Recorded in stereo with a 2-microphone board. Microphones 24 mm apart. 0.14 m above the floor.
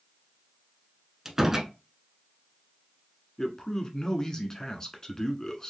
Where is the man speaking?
25° left (ahead or behind), 1.2 m.